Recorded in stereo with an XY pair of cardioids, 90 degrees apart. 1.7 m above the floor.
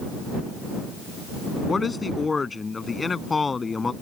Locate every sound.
1.7 s a man speaking: 30° left